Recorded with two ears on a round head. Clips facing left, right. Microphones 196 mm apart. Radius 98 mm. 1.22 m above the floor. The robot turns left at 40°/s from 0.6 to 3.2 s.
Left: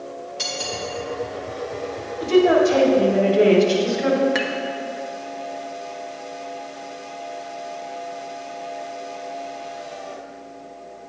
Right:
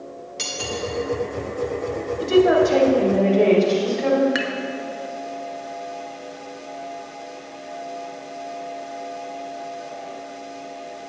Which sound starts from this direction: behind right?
A woman speaking, at 2.2 s.